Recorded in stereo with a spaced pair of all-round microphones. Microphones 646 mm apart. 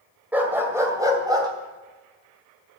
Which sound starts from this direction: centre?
A dog barking, at 0.3 s.